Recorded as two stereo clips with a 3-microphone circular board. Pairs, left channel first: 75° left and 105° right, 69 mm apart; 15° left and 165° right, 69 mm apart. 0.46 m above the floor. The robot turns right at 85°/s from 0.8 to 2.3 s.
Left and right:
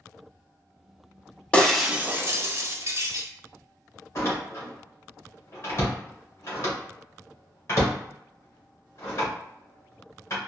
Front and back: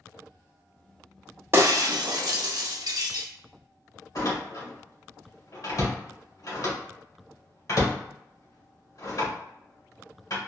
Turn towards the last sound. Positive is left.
turn(degrees=30)